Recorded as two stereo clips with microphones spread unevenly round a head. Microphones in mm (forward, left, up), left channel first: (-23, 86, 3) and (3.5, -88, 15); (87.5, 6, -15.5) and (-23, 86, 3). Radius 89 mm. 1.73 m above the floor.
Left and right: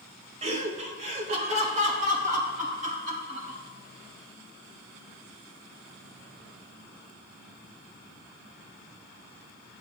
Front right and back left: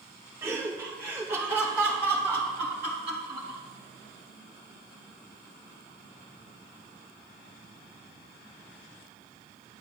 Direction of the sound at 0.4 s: 140° right.